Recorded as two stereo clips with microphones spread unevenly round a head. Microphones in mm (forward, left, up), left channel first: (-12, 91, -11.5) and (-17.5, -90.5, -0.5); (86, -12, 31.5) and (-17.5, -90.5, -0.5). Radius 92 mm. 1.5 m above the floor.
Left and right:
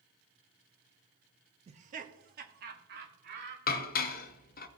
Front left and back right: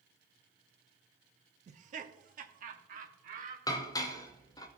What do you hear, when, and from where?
1.7 s laughter: 150° right, 0.6 m; by 3.6 s 130° right, 2.0 m
3.7 s dishes clattering: 70° left, 0.6 m